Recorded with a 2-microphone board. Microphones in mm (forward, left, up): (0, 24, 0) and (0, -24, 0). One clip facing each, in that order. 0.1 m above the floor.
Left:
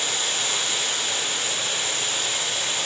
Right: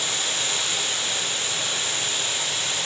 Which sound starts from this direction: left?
Running water, at 0.0 s.